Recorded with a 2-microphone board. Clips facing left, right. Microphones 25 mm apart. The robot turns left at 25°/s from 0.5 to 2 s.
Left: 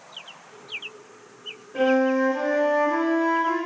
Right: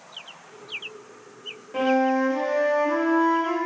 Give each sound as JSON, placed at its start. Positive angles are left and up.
{"t": 1.7, "sound": "a flute", "side_deg": -65, "distance_m": 1.7}